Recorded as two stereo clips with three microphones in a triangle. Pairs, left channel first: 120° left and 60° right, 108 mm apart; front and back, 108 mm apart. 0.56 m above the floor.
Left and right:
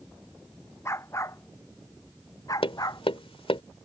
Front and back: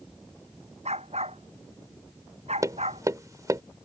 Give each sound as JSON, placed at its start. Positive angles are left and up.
{"t": 0.8, "sound": "a dog barking", "azimuth_deg": -175}
{"t": 2.6, "sound": "tapping", "azimuth_deg": 125}